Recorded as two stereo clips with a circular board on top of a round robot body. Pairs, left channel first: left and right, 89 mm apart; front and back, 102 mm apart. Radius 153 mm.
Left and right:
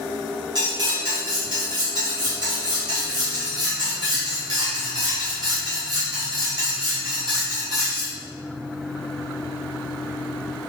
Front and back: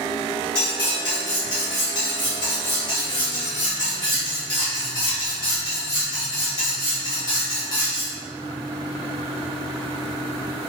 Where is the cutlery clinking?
45° right, 1.5 m.